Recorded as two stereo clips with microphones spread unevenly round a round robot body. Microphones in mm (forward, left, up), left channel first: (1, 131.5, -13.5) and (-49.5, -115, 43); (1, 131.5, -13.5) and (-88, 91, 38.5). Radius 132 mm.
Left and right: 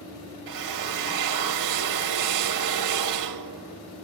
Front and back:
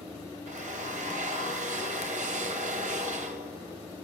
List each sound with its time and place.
0.5 s a drill: 110° right, 2 m